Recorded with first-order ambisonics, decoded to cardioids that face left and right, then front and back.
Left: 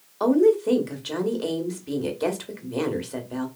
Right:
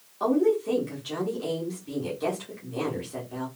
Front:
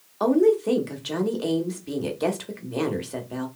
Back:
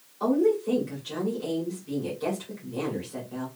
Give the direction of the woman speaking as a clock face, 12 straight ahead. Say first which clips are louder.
Left 5 dB, front 4 dB; 11 o'clock.